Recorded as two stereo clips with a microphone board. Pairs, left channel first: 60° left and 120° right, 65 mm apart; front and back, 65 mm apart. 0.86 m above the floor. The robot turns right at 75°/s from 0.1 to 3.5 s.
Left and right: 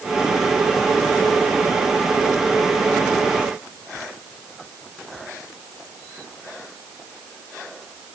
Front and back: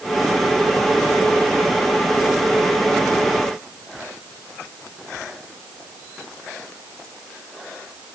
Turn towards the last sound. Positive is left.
No sound to turn to.